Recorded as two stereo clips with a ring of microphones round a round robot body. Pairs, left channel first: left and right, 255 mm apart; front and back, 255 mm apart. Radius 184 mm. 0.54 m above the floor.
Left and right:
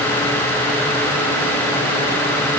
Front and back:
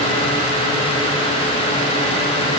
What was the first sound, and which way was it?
Only background noise.